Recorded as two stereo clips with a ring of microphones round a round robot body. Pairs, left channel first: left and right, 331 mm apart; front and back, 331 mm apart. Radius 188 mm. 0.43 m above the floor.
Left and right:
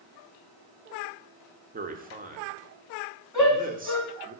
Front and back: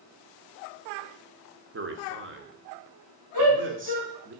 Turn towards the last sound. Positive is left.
turn(degrees=170)